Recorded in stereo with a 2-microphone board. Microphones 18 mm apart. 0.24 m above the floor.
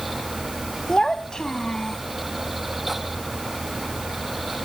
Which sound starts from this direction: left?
A child speaking, at 0.9 s.